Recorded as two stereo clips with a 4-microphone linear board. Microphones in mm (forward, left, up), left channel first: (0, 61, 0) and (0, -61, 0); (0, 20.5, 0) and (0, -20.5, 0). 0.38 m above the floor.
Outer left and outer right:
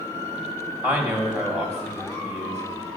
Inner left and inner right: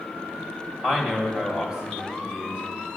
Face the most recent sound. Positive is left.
turn(degrees=-20)  # may be behind; listen again after turning